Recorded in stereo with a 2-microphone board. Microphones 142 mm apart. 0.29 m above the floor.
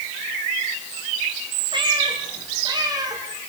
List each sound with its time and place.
1.7 s a cat meowing: 35° right (ahead or behind), 7.5 m; by 3.2 s 25° right (ahead or behind), 7.5 m